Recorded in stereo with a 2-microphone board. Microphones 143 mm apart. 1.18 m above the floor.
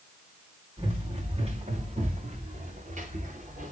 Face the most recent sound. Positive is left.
turn(degrees=-65)  # may be behind; listen again after turning